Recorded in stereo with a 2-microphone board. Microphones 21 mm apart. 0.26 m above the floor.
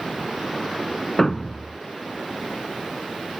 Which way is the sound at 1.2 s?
20° left (ahead or behind).